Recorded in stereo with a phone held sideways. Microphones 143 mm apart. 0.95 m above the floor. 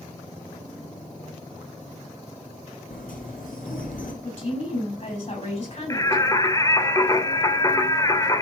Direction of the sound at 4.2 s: 50° left (ahead or behind).